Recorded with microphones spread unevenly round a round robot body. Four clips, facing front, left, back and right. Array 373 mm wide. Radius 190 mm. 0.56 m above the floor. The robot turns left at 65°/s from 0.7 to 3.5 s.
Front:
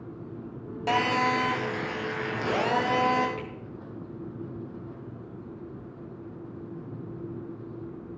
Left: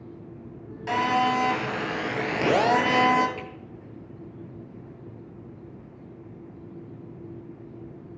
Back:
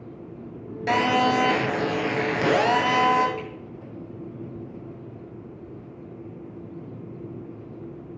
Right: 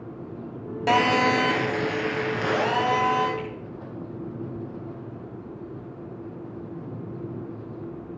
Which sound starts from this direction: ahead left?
A finger snap, at 3.4 s.